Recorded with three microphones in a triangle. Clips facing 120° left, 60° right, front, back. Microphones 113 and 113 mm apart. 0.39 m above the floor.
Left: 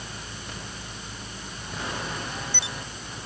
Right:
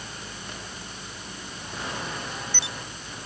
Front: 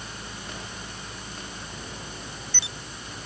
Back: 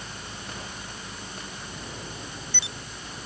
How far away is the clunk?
No clunk in this recording.